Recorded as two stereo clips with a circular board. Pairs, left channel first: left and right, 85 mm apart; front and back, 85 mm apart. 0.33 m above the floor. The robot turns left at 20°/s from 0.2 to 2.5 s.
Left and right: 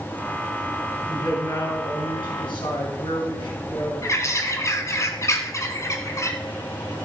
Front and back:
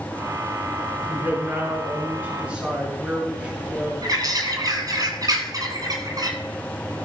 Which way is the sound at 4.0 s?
140° left.